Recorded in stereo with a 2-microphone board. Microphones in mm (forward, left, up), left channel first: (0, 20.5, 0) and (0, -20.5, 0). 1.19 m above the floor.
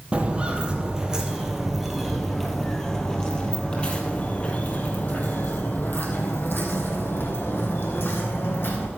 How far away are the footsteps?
About 2.5 m.